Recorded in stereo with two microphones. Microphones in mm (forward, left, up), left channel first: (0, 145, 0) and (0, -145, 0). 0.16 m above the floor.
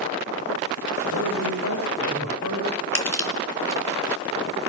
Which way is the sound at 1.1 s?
80° right.